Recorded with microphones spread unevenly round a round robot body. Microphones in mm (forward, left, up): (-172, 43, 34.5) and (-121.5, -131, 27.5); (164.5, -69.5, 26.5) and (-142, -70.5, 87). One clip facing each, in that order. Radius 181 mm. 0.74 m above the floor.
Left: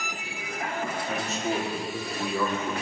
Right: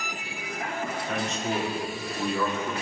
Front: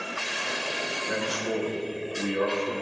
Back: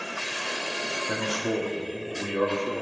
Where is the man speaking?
175° right, 2 m.